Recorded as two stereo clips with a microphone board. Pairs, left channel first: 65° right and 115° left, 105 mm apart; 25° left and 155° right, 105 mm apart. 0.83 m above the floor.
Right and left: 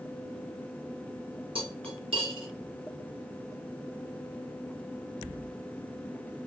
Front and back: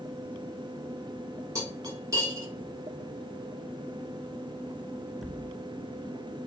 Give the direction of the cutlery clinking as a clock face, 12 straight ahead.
7 o'clock.